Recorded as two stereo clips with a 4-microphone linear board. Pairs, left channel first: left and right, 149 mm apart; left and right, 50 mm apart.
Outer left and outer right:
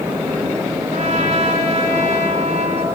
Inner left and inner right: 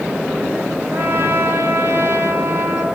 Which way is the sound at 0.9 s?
50° right (ahead or behind).